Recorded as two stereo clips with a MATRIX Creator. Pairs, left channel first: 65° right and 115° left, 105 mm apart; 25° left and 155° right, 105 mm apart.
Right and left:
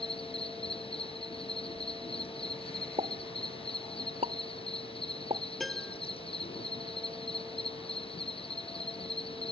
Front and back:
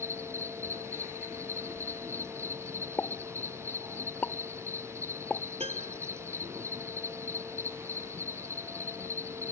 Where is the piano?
155° right.